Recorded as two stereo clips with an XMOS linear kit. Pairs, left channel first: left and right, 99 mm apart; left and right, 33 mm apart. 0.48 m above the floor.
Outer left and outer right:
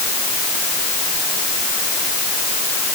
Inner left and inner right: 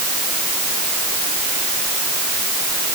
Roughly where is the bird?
No bird in this recording.